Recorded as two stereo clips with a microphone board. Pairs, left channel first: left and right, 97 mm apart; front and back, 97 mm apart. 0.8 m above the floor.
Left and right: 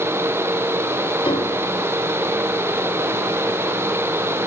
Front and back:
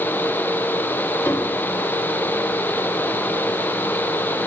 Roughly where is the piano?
Ahead left.